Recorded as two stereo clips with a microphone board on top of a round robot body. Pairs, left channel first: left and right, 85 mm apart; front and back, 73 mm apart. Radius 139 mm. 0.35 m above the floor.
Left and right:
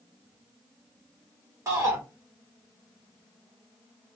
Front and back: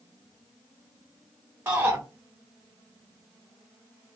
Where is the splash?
No splash in this recording.